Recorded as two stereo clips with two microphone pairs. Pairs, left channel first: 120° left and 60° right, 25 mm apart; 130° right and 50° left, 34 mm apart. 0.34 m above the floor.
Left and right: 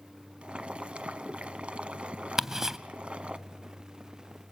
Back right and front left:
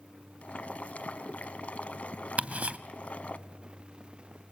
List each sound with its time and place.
0.4 s boiling: 90° right, 0.9 m
2.4 s ticking: 15° left, 0.7 m